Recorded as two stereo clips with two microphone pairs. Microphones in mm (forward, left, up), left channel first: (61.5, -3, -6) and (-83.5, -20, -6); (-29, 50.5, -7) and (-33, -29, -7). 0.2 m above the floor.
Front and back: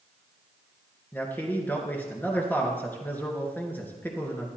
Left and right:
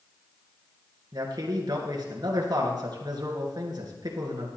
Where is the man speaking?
70° right, 2.5 m.